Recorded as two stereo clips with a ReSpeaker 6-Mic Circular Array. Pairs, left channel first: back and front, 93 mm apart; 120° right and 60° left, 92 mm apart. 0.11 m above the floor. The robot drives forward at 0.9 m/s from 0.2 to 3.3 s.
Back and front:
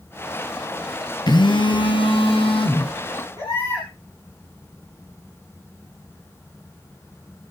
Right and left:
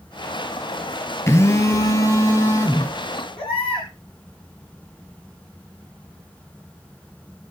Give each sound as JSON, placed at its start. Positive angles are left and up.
{"t": 1.3, "sound": "a phone buzzing", "azimuth_deg": -175, "distance_m": 1.1}
{"t": 3.4, "sound": "a baby crying", "azimuth_deg": -120, "distance_m": 7.5}